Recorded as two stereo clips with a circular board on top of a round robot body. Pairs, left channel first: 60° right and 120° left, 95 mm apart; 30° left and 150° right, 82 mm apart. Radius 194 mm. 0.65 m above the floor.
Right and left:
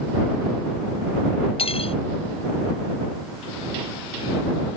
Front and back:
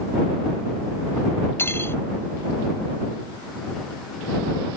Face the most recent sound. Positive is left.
turn(degrees=-35)